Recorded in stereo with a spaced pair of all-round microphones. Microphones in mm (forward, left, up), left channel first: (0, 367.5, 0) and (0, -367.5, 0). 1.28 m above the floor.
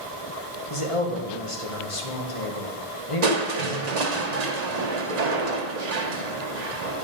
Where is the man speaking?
45° left (ahead or behind), 1.6 m.